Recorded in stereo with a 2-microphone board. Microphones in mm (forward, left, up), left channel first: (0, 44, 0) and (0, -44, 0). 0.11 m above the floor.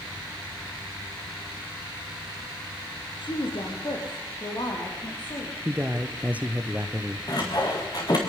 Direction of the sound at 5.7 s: 15° right (ahead or behind).